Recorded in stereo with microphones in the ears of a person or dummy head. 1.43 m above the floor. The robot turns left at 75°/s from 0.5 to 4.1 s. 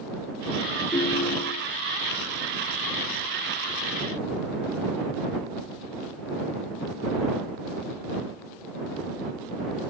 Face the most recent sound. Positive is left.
turn(degrees=-75)